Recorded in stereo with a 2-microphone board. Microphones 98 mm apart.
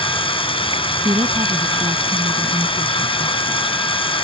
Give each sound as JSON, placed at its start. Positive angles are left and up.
{"t": 0.0, "sound": "running water", "side_deg": 65}
{"t": 1.1, "sound": "a woman speaking", "side_deg": -65}